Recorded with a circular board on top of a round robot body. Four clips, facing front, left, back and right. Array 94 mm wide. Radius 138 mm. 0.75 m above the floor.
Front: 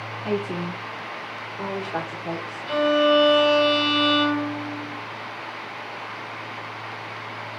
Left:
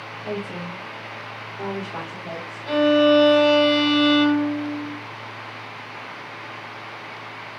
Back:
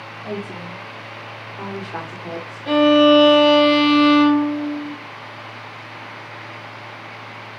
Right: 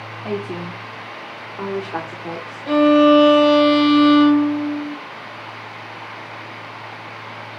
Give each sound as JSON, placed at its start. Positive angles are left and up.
{"t": 0.2, "sound": "a woman speaking", "azimuth_deg": -65, "distance_m": 2.0}
{"t": 2.7, "sound": "a violin", "azimuth_deg": -155, "distance_m": 2.5}